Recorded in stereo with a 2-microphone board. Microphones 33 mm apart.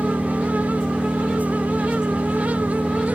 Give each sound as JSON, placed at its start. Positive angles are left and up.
{"t": 0.0, "sound": "an engine running", "side_deg": -25}